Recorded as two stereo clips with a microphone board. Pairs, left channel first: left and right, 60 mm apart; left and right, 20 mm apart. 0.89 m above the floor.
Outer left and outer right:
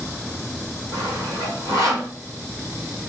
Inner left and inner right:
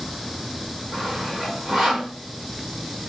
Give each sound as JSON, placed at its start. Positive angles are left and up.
{"t": 0.9, "sound": "sawing", "side_deg": -50, "distance_m": 3.5}